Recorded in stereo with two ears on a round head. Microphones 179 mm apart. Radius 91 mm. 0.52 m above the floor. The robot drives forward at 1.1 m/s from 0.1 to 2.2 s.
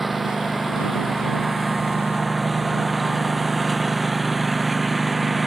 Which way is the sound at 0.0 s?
Centre (ahead or behind).